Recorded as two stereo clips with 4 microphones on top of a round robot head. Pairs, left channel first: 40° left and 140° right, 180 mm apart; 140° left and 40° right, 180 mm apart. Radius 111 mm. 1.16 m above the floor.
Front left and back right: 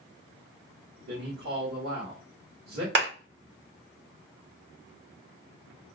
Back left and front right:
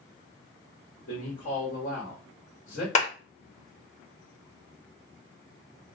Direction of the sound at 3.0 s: 165° right.